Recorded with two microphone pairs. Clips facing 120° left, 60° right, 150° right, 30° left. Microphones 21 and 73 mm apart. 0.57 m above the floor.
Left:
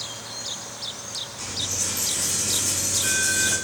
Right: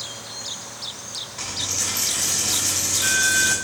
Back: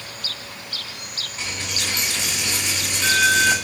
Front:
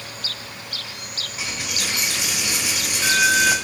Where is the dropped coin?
50° right, 1.0 m.